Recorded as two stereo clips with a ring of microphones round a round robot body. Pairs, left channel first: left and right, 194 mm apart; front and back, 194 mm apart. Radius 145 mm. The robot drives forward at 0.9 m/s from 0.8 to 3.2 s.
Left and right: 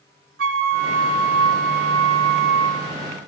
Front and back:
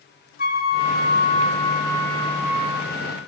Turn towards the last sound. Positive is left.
turn(degrees=-105)